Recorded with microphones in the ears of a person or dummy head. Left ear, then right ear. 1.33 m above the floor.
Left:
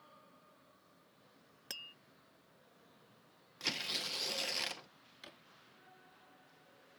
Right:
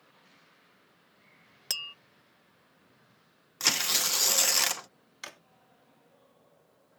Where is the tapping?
30° right (ahead or behind).